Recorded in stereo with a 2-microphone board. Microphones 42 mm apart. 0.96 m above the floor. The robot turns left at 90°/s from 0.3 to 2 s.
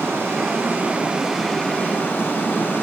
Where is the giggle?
I don't hear a giggle.